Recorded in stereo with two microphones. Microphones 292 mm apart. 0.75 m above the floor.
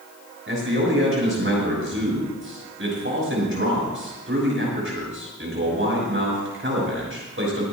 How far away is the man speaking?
About 6 m.